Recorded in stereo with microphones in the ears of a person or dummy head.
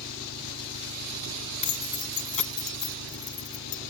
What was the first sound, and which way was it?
An engine running, 65° left (ahead or behind).